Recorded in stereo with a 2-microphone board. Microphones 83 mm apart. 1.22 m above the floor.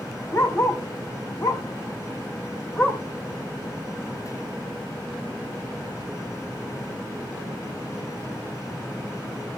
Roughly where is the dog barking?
Left.